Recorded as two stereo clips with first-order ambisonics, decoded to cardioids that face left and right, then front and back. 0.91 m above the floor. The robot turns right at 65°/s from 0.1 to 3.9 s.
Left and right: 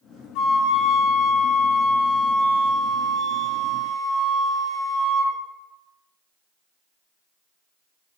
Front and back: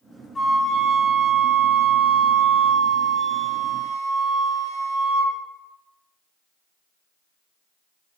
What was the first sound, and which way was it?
A flute, 80° left.